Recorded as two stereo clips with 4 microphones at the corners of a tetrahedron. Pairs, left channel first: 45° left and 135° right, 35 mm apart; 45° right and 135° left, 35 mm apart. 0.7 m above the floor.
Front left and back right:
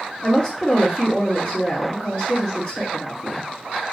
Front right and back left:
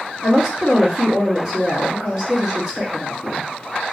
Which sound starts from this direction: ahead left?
A woman speaking, at 0.2 s.